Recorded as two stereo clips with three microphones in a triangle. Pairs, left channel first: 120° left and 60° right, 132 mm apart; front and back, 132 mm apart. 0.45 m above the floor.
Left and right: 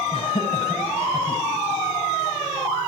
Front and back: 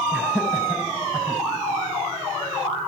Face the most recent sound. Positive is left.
turn(degrees=105)